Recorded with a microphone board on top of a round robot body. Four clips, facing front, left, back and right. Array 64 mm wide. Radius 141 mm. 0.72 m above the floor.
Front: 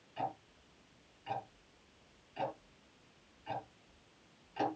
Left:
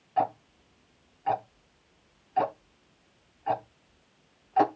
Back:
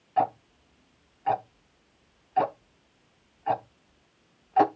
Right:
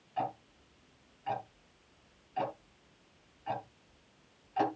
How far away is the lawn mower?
No lawn mower in this recording.